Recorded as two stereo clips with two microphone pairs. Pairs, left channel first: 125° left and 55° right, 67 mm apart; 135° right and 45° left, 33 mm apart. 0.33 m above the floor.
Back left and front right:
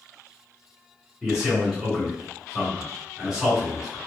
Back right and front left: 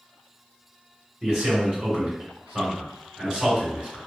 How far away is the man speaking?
About 1.9 m.